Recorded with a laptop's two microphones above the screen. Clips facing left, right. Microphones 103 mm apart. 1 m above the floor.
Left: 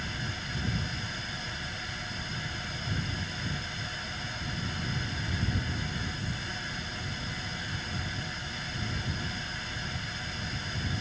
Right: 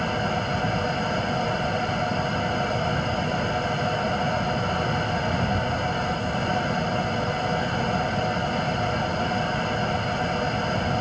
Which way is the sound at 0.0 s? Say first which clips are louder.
Right 14 dB; 65° right (ahead or behind).